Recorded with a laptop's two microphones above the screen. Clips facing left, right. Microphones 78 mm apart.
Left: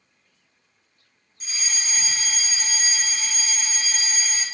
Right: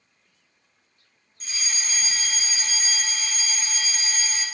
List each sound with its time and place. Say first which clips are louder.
1.4 s a fire alarm: left 1 dB; 5° left (ahead or behind), 1.5 m